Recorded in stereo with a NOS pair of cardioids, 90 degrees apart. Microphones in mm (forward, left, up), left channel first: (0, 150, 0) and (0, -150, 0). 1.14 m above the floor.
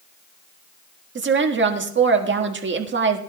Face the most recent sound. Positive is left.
turn(degrees=-40)